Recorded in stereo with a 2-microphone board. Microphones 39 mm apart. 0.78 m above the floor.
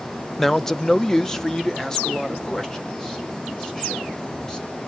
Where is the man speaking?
5° left (ahead or behind), 0.5 m; by 4.8 s 15° left (ahead or behind), 4 m.